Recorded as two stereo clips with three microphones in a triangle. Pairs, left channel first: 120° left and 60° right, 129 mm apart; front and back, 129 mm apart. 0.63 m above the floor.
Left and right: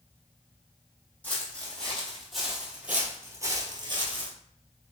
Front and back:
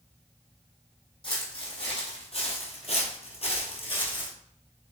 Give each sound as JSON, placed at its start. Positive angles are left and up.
{"t": 1.2, "sound": "footsteps", "azimuth_deg": 45, "distance_m": 1.7}